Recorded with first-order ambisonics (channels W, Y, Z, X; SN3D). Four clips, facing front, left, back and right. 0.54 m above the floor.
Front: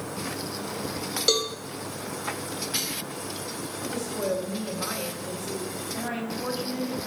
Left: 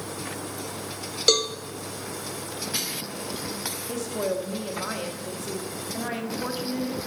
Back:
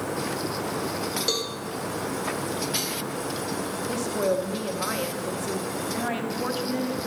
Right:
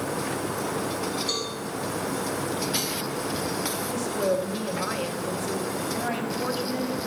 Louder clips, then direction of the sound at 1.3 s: Left 8 dB, front 5 dB; 75° left.